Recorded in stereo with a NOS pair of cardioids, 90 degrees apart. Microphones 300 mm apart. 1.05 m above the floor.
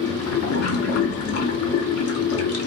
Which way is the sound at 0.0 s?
55° left.